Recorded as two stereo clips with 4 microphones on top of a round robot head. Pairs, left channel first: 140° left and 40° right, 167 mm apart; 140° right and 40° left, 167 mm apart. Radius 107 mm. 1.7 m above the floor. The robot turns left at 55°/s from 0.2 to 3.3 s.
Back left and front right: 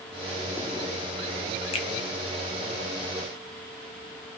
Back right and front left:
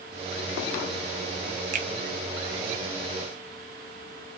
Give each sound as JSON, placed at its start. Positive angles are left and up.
{"t": 1.7, "sound": "a finger snap", "azimuth_deg": 85, "distance_m": 0.7}